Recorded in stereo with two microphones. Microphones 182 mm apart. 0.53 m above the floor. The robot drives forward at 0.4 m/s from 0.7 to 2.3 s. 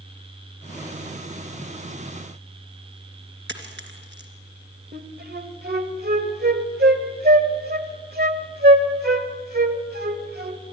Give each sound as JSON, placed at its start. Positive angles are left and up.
{"t": 3.5, "sound": "a dropped coin", "side_deg": -80, "distance_m": 3.0}
{"t": 4.9, "sound": "a flute", "side_deg": -60, "distance_m": 1.6}